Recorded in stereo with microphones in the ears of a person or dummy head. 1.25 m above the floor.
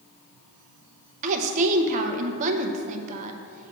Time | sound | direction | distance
1.2 | a woman speaking | 45° right (ahead or behind) | 0.6 m